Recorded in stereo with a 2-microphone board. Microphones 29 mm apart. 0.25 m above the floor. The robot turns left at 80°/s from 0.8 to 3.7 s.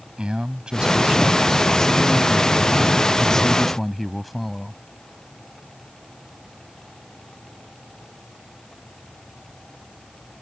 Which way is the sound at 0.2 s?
130° right.